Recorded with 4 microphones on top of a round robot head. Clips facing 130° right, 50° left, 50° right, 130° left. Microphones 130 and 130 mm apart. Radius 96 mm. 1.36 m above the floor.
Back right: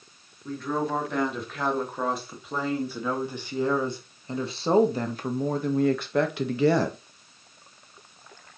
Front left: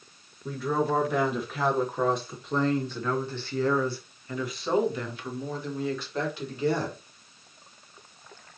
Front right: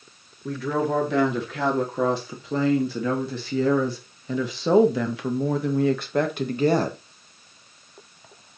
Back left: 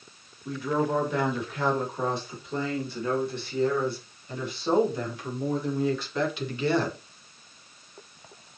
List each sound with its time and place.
0.5 s a woman speaking: 30° right, 4 m; by 7.0 s 110° right, 1.9 m